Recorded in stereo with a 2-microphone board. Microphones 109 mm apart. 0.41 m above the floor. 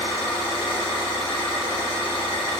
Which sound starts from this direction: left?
An engine running, at 0.0 s.